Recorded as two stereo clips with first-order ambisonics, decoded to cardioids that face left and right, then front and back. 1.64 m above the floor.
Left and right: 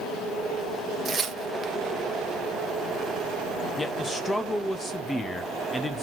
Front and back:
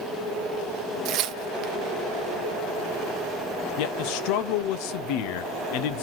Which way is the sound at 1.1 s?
155° right.